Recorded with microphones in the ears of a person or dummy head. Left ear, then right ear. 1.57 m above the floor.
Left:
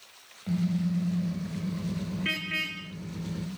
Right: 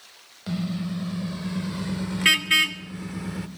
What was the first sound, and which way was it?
A car horn, 45° right (ahead or behind).